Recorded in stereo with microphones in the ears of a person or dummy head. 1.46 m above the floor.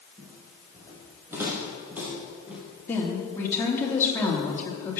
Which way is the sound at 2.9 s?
20° left (ahead or behind).